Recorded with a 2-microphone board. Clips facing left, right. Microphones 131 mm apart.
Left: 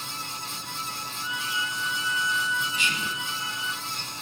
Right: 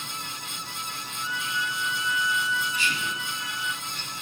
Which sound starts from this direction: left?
Whispering, at 2.7 s.